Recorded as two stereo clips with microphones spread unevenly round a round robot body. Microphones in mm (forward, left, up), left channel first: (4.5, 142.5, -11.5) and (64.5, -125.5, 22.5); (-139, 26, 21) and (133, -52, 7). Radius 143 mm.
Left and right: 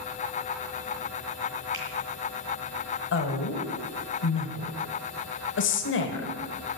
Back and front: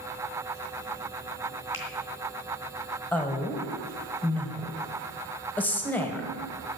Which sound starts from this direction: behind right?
A finger snap, at 1.7 s.